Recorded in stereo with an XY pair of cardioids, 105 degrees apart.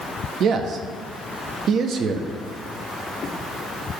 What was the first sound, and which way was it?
A man speaking, 65° right.